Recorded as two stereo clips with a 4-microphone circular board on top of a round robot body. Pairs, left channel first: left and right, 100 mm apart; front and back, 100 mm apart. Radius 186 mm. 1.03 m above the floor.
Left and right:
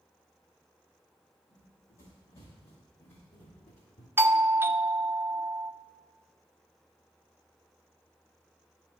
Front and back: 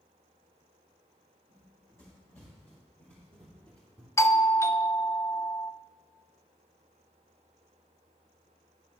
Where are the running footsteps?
65° left, 3 m; by 4.1 s 80° left, 1.4 m.